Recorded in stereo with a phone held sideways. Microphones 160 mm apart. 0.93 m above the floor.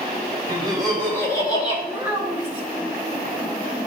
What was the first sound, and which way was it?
Laughter, 5° right (ahead or behind).